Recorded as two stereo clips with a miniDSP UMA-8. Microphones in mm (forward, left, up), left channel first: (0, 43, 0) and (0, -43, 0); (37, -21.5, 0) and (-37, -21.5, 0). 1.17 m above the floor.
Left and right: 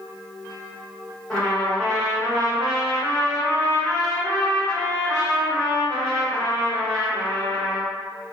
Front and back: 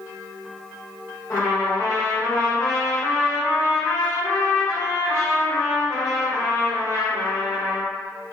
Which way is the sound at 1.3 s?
15° left.